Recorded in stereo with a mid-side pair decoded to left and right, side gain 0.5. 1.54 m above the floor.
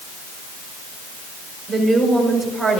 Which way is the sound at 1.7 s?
10° right.